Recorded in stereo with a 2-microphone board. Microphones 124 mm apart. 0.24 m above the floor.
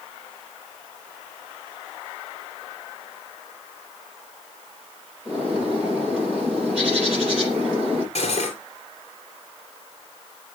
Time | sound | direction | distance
5.2 | a bird | 5° right (ahead or behind) | 7.5 m
8.2 | cutlery clinking | 55° left (ahead or behind) | 3 m